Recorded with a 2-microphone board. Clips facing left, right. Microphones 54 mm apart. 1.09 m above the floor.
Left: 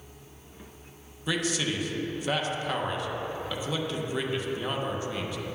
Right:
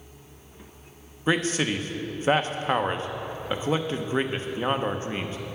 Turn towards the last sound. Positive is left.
turn(degrees=-35)  # may be behind; listen again after turning